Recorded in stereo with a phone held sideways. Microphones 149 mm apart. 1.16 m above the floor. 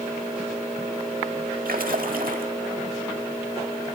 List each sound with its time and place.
1.6 s a splash: 75° right (ahead or behind), 1.6 m